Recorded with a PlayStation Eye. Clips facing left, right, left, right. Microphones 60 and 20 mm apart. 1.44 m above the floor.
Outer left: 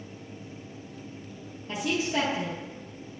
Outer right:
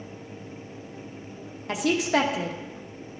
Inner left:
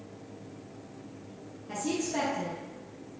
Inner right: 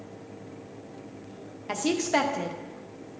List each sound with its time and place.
1.7 s a woman speaking: 80° right, 0.9 m